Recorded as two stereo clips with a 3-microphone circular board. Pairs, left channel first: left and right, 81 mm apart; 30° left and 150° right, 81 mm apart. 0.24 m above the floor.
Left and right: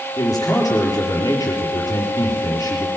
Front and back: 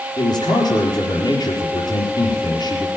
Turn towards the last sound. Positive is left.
turn(degrees=45)